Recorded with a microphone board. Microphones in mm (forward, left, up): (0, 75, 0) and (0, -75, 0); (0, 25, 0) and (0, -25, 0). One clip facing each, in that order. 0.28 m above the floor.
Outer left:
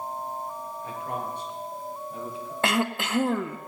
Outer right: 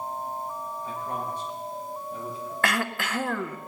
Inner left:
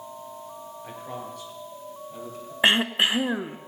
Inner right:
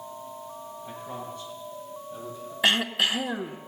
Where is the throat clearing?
25° left (ahead or behind), 0.6 m.